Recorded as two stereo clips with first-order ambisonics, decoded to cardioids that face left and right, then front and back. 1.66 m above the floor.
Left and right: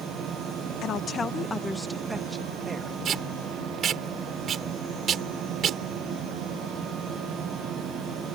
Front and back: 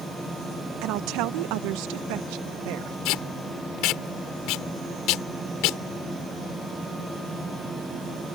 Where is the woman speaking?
145° left; by 3.0 s 160° right.